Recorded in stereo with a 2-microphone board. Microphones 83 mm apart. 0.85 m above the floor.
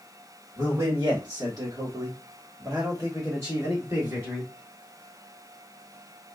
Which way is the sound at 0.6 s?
40° right (ahead or behind).